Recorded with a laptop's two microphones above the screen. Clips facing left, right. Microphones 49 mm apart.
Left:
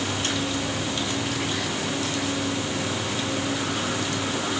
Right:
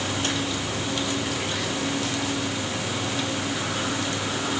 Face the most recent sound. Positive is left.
No sound to turn to.